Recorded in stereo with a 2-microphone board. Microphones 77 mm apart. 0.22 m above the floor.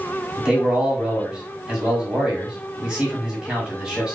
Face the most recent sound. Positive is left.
turn(degrees=-10)  # may be behind; listen again after turning